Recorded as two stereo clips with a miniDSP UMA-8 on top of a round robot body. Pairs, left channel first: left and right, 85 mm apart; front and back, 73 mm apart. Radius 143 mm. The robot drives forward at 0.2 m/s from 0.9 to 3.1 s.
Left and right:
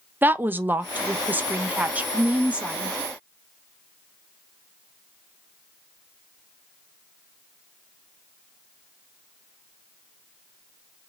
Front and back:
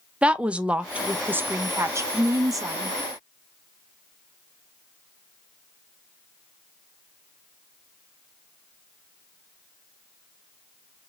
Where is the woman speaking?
125° right, 0.5 m; by 3.0 s 165° right, 0.7 m.